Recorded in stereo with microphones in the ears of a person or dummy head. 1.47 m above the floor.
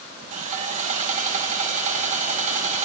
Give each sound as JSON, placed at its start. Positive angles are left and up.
{"t": 0.3, "sound": "sawing", "side_deg": -45, "distance_m": 1.4}